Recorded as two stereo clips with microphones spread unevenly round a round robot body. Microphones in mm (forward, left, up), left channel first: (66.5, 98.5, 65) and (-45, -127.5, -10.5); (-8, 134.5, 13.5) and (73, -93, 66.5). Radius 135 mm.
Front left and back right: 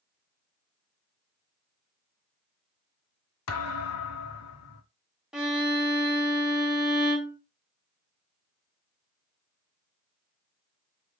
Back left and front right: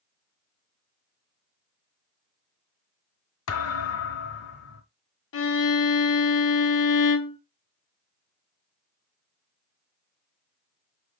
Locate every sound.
3.5 s a thud: 80° left, 1.0 m
5.3 s a violin: 155° left, 0.9 m